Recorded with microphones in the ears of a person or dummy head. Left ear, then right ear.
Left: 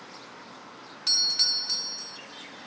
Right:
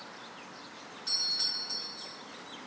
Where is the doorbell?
35° left (ahead or behind), 2.5 m.